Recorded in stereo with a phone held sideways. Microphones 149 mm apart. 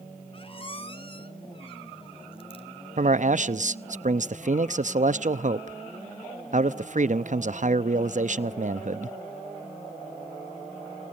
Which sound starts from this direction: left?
A squeak, at 0.3 s.